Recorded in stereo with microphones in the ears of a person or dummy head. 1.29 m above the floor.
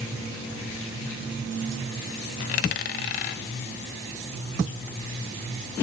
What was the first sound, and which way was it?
A dropped coin, 40° left (ahead or behind).